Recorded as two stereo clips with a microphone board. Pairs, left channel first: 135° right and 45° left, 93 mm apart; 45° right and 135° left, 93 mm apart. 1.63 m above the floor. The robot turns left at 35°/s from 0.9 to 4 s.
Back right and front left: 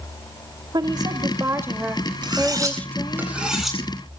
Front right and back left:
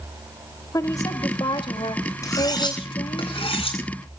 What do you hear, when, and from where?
0.7 s a woman speaking: 5° left, 2.5 m; by 3.2 s 75° right, 2.5 m
2.2 s cutlery clinking: 10° left, 9 m; by 4.2 s 55° right, 9 m